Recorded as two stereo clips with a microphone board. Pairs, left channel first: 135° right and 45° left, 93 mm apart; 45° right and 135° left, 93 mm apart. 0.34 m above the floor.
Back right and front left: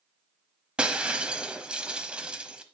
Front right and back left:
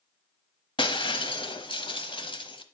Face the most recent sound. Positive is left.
turn(degrees=-35)